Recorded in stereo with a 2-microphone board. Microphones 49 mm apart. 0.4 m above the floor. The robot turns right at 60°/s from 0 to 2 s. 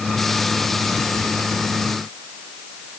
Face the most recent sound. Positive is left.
No sound to turn to.